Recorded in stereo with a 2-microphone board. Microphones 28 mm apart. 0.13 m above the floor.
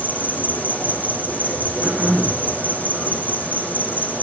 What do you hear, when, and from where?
0.0 s an insect: 65° left (ahead or behind), 2.5 m
1.8 s throat clearing: 35° left (ahead or behind), 7 m